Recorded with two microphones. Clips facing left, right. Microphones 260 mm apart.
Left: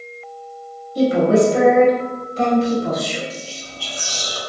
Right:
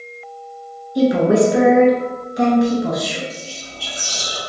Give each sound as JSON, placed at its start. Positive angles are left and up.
{"t": 0.9, "sound": "a woman speaking", "side_deg": -15, "distance_m": 1.3}
{"t": 3.3, "sound": "whispering", "side_deg": -20, "distance_m": 1.2}